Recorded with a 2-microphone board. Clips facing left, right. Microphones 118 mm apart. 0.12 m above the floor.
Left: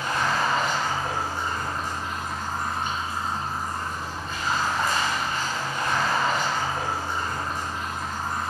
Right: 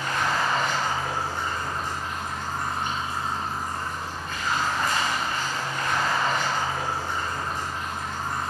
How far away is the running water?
About 1.0 m.